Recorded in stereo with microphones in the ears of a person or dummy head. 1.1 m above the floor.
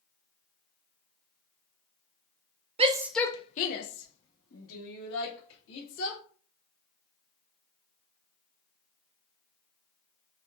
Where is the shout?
30° right (ahead or behind), 0.6 m; by 6.2 s 80° left, 2.5 m.